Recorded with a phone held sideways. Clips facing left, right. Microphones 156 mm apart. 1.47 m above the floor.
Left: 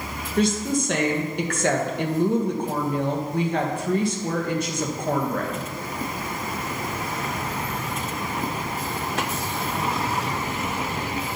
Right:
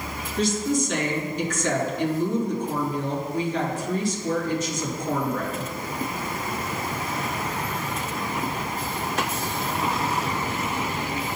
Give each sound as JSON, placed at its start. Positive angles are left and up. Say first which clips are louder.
{"t": 0.4, "sound": "a woman speaking", "louder": "left 1 dB", "side_deg": 70, "distance_m": 1.5}